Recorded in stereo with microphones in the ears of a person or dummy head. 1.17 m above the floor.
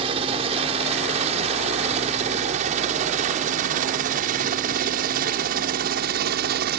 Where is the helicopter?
30° right (ahead or behind); by 6.8 s 55° right (ahead or behind).